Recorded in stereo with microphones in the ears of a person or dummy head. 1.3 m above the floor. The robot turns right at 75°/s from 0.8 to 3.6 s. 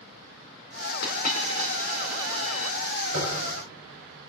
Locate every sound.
1.0 s a dropped coin: 60° left (ahead or behind), 1.9 m; by 2.8 s 60° right (ahead or behind), 1.9 m
3.1 s tapping: 70° right (ahead or behind), 7 m; by 3.3 s 55° right (ahead or behind), 7 m